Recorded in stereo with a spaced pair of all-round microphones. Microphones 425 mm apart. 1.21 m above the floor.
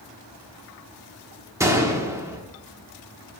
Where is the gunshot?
5° right (ahead or behind), 1.2 m.